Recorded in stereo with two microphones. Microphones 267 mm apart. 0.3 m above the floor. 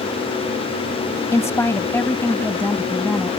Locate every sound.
1.3 s a woman speaking: 10° left (ahead or behind); by 3.3 s 5° left (ahead or behind)